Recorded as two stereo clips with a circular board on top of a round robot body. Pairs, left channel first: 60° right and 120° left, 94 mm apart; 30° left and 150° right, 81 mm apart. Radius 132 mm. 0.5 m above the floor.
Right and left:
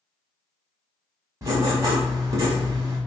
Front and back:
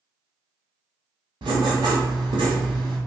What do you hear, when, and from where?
1.4 s writing: 175° left, 1.1 m